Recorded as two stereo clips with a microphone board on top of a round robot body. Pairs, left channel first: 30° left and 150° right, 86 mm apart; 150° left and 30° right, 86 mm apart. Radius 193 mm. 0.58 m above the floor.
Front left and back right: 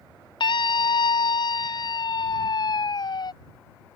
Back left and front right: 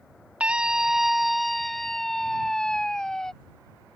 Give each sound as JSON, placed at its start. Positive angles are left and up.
{"t": 0.4, "sound": "a scream", "azimuth_deg": 45}